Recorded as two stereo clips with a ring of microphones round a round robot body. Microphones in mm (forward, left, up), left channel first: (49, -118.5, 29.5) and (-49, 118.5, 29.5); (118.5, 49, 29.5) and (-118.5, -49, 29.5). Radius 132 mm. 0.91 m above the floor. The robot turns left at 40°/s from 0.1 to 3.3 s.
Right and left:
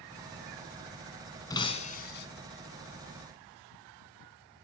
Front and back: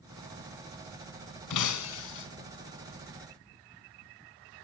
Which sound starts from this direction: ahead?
Breaking glass, at 1.5 s.